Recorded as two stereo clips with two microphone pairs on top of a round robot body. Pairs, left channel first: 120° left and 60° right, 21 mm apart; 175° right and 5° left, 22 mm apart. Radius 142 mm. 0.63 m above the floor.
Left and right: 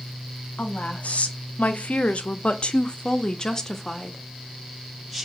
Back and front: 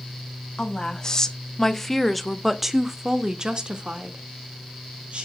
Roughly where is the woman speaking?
Behind left.